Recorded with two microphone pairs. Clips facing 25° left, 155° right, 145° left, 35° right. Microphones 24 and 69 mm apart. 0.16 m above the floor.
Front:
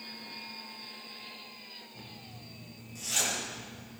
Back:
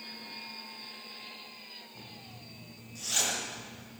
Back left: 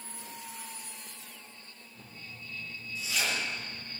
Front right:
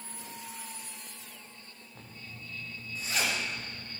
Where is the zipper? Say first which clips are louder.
Even, even; 80° right, 8.5 m.